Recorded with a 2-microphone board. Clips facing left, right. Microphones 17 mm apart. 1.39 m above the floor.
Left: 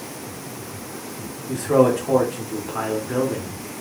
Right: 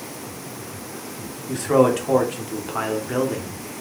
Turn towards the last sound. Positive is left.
turn(degrees=-55)  # may be behind; listen again after turning